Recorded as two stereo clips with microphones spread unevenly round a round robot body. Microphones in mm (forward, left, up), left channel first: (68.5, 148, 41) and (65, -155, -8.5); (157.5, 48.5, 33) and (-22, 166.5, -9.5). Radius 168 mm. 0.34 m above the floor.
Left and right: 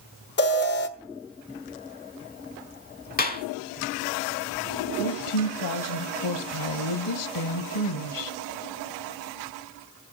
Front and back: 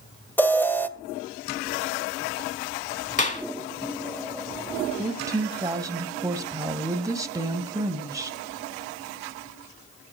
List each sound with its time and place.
0.4 s an alarm: 60° left, 1.5 m
3.2 s a clap: 25° left, 3 m
5.0 s a woman speaking: 80° left, 1.8 m